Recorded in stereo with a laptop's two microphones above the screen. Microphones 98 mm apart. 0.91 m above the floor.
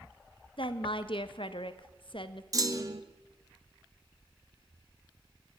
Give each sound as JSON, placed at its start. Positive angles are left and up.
{"t": 0.6, "sound": "a woman speaking", "side_deg": 60, "distance_m": 0.7}
{"t": 2.5, "sound": "a clunk", "side_deg": -35, "distance_m": 0.9}